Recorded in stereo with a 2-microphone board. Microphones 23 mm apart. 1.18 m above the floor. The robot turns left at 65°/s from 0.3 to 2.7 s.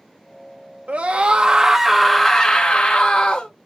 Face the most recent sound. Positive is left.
turn(degrees=130)